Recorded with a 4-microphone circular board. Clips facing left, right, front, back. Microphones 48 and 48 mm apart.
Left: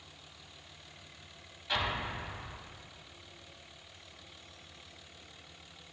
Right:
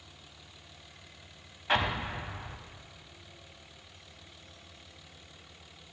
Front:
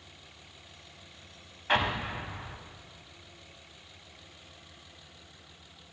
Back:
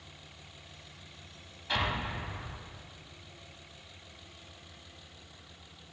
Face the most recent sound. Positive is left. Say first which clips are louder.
# right 4 dB, front 4 dB
turn(degrees=-40)